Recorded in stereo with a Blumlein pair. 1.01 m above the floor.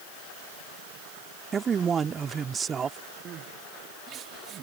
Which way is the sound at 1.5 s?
20° right.